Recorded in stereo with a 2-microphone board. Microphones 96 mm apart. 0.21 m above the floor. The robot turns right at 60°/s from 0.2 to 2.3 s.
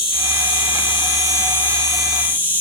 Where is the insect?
75° left, 0.8 m; by 2.6 s 160° right, 0.8 m.